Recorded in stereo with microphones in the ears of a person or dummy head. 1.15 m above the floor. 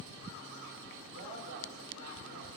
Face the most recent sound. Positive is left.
turn(degrees=-65)  # may be behind; listen again after turning